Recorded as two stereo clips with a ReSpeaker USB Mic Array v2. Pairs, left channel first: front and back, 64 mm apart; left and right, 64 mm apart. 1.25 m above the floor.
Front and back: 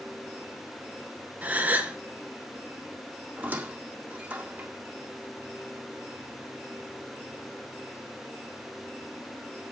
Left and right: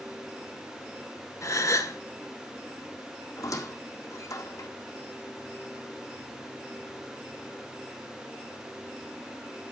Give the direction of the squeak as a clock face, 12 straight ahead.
8 o'clock.